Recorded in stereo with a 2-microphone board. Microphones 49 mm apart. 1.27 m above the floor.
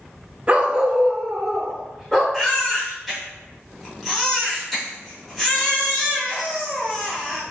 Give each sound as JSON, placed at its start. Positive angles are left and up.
{"t": 0.5, "sound": "a dog barking", "side_deg": -30, "distance_m": 0.7}
{"t": 2.3, "sound": "a baby crying", "side_deg": 5, "distance_m": 2.0}